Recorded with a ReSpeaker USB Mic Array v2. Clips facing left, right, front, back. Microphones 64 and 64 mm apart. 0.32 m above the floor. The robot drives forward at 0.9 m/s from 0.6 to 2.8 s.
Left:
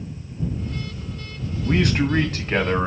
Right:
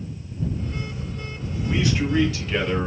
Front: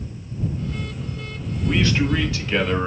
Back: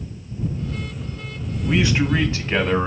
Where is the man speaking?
100° left, 1.6 m; by 2.9 s 135° left, 2 m.